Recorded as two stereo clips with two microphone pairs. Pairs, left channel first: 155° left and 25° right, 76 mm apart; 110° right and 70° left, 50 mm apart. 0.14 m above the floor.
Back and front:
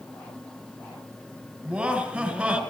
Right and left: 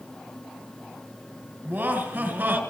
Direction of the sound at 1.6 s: 45° left.